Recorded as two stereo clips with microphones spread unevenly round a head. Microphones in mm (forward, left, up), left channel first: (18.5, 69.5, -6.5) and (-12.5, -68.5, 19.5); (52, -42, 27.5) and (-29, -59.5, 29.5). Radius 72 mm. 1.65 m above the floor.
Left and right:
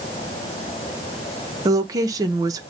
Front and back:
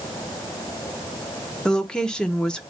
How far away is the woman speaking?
About 0.6 m.